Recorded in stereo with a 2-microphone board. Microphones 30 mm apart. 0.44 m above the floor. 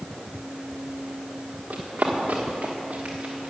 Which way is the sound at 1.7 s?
75° right (ahead or behind).